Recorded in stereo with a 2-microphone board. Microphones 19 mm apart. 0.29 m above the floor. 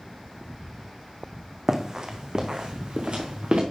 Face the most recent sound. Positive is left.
turn(degrees=-60)  # may be behind; listen again after turning